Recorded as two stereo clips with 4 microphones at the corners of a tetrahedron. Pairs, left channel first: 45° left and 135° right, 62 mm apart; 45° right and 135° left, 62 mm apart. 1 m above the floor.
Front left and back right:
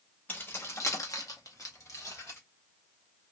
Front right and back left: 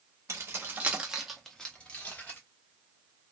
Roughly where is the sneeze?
No sneeze in this recording.